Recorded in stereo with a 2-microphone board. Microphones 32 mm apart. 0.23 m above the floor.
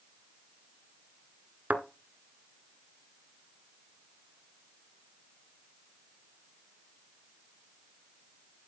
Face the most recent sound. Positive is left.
turn(degrees=-60)  # may be behind; listen again after turning